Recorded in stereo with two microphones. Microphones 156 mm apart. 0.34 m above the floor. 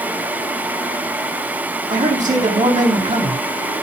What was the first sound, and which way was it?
A man speaking, 50° right (ahead or behind).